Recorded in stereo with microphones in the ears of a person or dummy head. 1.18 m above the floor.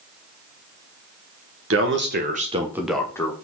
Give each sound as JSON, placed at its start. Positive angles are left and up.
{"t": 1.7, "sound": "a man speaking", "side_deg": -65, "distance_m": 1.4}